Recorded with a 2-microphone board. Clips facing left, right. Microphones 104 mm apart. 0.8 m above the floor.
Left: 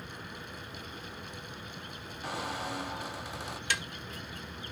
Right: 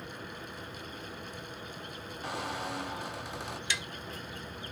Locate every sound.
2.2 s a squeak: centre (ahead or behind)
3.7 s tapping: 55° left (ahead or behind)